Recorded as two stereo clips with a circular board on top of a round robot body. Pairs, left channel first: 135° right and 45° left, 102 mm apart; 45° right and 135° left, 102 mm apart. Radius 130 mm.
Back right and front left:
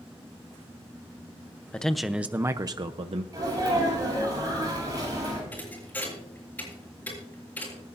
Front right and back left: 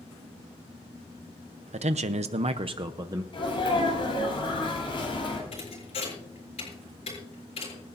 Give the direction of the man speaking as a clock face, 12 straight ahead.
7 o'clock.